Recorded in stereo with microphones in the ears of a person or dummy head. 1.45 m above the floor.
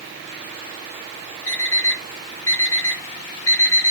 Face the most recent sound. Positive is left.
turn(degrees=15)  # may be behind; listen again after turning